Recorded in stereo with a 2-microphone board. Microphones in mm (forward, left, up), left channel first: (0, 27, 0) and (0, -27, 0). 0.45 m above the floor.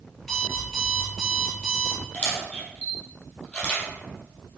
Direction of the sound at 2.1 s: 25° left (ahead or behind).